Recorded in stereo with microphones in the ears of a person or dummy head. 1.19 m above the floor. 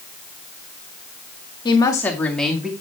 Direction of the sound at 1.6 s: 20° left (ahead or behind).